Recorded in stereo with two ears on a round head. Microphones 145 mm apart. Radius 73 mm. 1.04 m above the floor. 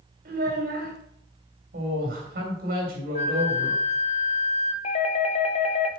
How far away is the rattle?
No rattle in this recording.